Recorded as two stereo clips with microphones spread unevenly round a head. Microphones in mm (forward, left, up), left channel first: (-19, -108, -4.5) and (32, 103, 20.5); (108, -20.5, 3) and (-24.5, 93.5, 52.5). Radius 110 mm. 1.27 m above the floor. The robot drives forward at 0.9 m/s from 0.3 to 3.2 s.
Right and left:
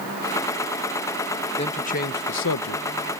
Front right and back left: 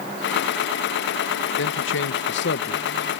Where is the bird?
I don't hear a bird.